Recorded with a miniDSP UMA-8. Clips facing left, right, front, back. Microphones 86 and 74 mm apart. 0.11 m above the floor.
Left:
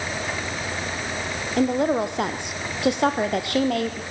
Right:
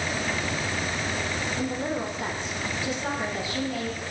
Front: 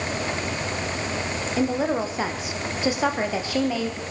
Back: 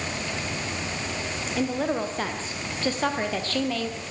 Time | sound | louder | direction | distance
1.6 | a woman speaking | left 12 dB, front 3 dB | 80° left | 3 m